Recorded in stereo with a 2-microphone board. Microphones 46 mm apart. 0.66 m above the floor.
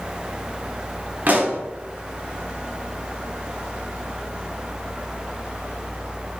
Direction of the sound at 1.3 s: 45° right (ahead or behind).